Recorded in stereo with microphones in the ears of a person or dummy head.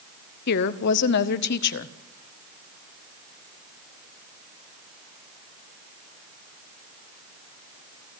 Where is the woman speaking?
55° left (ahead or behind), 0.9 m.